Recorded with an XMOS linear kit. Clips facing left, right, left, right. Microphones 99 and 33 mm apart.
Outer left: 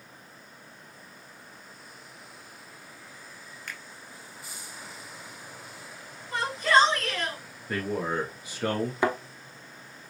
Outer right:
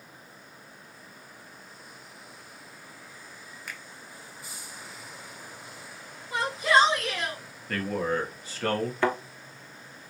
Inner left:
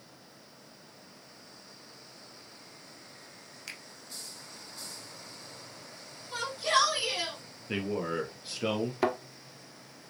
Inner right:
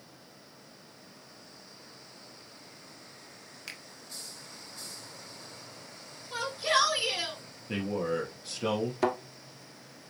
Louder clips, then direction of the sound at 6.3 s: Even, even; 10° right (ahead or behind).